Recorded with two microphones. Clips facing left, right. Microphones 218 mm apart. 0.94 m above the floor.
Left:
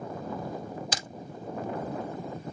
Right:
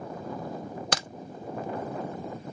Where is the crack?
75° right (ahead or behind), 0.6 m.